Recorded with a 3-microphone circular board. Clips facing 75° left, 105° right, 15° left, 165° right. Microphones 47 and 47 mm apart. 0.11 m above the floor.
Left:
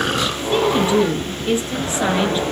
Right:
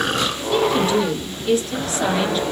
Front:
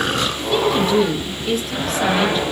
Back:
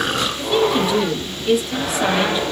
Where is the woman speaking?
115° left, 1.5 m.